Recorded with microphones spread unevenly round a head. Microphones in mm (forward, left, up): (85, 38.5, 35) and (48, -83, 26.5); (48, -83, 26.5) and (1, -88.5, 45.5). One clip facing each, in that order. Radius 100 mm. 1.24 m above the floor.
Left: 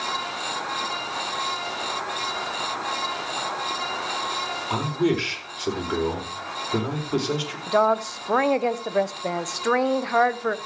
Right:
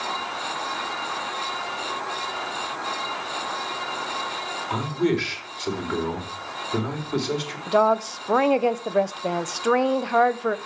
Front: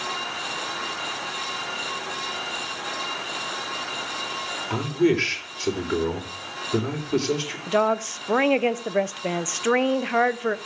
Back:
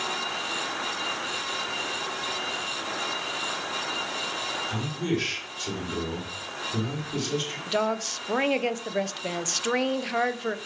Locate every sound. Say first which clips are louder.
4.7 s a man speaking: even, front 10 dB; 5° right, 4.5 m
7.7 s a woman speaking: right 1 dB, front 6 dB; 30° right, 1.0 m